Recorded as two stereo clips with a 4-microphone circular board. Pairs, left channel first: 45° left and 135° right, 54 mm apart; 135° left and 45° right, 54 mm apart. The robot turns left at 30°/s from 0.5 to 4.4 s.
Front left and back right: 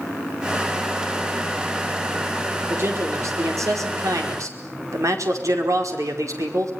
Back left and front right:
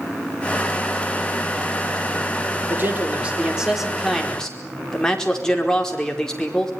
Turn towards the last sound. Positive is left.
turn(degrees=-145)